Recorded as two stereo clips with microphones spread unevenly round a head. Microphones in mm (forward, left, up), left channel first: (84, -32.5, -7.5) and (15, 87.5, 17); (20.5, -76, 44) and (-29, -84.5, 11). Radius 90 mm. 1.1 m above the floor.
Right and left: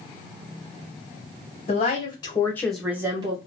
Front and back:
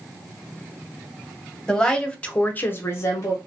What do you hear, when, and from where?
1.7 s a woman speaking: 95° right, 1.2 m; by 3.4 s 80° left, 0.7 m